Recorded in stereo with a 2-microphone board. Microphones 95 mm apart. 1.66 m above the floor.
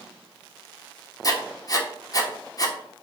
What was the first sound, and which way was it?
Writing, 40° left (ahead or behind).